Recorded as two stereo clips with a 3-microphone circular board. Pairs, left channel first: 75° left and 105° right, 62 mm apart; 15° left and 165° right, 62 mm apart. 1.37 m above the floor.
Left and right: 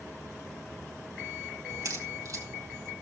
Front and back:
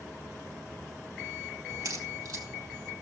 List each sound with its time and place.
1.7 s a crack: 140° right, 3.5 m